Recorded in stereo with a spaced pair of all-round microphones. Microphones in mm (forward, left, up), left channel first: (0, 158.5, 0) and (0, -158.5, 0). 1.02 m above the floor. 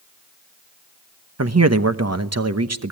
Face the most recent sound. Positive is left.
turn(degrees=-50)  # may be behind; listen again after turning